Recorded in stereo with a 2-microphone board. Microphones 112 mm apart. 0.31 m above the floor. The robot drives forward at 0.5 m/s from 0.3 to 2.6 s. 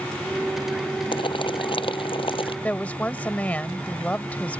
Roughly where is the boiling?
Left.